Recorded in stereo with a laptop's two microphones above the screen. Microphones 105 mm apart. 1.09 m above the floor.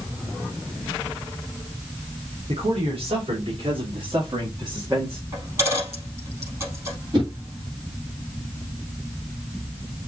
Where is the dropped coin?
30° right (ahead or behind), 4 m.